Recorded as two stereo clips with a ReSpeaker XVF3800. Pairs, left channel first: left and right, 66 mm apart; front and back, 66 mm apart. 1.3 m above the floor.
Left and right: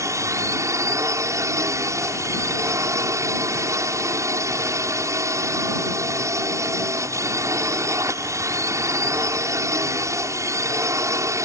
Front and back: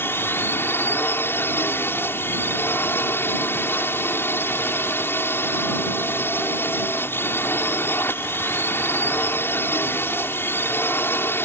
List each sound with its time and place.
0.0 s a drone: 55° right